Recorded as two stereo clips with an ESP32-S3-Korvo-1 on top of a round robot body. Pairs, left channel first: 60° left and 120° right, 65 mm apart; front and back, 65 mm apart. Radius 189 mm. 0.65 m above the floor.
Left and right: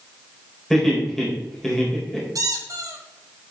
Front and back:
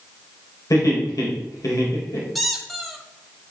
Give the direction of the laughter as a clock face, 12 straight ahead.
1 o'clock.